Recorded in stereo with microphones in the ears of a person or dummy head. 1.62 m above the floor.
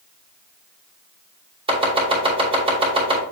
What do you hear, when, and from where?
1.7 s chopping: 35° right (ahead or behind), 3 m